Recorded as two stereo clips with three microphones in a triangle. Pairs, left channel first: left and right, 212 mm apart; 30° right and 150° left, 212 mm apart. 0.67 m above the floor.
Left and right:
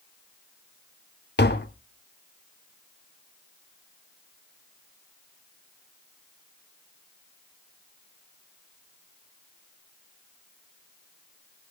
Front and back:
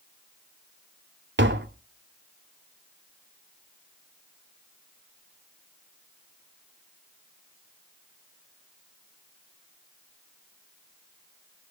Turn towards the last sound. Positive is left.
turn(degrees=125)